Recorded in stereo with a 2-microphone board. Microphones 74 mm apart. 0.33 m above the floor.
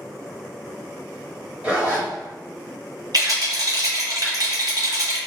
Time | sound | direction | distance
1.6 | a zipper | 20° right (ahead or behind) | 1.1 m
3.1 | a rattle | 60° right (ahead or behind) | 1.2 m